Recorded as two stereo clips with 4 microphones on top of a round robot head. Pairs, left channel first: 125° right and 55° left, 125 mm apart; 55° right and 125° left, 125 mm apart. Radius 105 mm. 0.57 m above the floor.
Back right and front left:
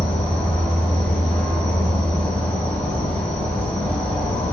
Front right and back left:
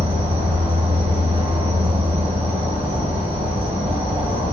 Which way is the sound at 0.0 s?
150° left.